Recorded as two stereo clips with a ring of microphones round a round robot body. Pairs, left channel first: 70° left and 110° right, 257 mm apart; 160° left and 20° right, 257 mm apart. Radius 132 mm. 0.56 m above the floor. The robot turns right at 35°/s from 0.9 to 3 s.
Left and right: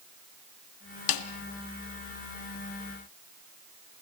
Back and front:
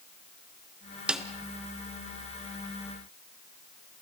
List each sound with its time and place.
1.1 s a snare drum: 65° left, 1.5 m; by 1.2 s 70° left, 1.5 m